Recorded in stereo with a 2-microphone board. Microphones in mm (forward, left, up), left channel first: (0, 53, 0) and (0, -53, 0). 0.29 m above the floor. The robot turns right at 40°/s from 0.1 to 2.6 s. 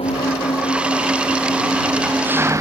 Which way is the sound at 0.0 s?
110° left.